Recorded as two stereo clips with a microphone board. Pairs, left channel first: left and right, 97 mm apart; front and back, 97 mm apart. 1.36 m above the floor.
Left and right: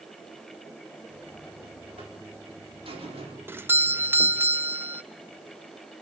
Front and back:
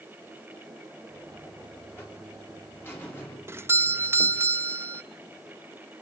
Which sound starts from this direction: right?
A buzzer, at 1.1 s.